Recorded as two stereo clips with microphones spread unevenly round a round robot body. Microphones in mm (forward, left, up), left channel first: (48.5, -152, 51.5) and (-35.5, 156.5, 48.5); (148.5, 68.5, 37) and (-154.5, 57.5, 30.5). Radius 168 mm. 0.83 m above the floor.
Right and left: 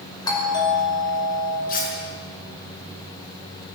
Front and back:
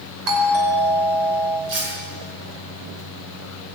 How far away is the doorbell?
About 5.5 m.